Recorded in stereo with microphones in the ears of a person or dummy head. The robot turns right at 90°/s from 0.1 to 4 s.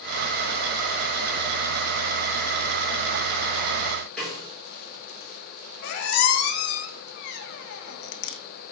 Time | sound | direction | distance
4.2 | a snare drum | centre (ahead or behind) | 4.5 m
5.8 | a squeak | 60° left (ahead or behind) | 1.0 m